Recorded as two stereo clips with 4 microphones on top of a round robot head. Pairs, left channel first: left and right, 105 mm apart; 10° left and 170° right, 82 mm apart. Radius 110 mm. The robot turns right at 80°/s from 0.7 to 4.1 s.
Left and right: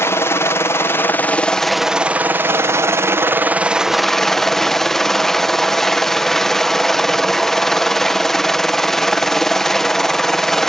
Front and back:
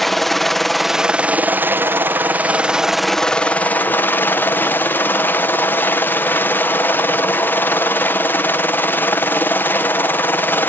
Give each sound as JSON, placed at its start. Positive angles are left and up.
{"t": 0.0, "sound": "a helicopter", "azimuth_deg": 95}